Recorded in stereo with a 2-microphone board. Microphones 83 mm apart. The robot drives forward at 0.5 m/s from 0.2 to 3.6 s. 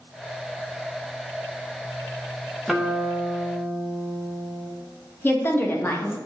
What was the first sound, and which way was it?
A guitar, centre (ahead or behind).